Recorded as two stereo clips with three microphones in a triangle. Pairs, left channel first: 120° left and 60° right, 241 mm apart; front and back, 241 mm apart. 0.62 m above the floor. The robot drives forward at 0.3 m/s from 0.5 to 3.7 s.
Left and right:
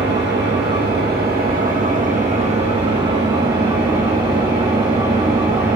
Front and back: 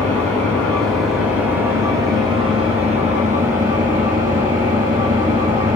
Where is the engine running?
80° right, 1.1 m; by 5.8 s 135° right, 1.4 m.